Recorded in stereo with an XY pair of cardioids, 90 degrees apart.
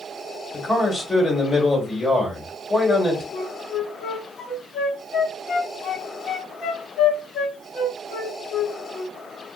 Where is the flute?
65° left, 0.8 m.